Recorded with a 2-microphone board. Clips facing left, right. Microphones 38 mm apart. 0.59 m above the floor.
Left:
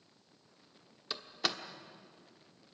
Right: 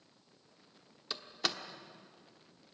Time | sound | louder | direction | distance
1.1 | a door slam | left 1 dB | 5° left (ahead or behind) | 1.1 m